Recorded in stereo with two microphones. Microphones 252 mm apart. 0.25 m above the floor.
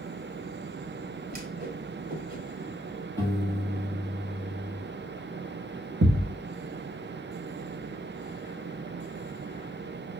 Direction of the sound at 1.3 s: 35° right (ahead or behind).